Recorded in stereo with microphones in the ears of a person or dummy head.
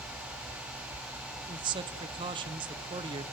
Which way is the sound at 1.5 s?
25° right (ahead or behind).